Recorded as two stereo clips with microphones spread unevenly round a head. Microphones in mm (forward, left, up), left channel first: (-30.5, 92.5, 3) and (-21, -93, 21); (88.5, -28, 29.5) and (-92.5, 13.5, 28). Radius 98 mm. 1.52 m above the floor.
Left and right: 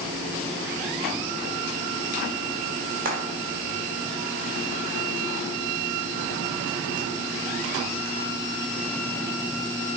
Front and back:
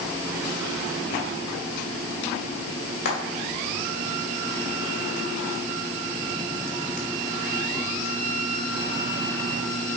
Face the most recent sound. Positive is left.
turn(degrees=-40)